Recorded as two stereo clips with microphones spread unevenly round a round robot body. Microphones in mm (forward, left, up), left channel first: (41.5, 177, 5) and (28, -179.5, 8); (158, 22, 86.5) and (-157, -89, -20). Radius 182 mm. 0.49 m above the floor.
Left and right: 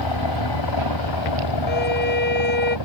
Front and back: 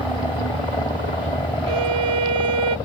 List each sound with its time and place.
0.0 s a helicopter: 105° left
1.7 s a violin: 150° left